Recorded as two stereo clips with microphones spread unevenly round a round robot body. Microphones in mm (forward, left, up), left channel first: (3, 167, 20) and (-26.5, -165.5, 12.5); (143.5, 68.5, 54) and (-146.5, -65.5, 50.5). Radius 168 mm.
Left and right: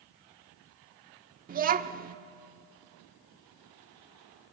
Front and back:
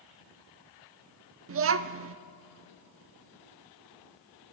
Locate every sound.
1.5 s a child speaking: 145° right, 0.9 m